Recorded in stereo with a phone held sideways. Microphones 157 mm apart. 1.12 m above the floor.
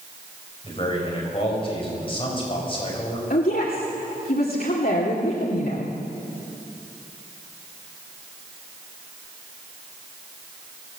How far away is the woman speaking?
About 2.5 m.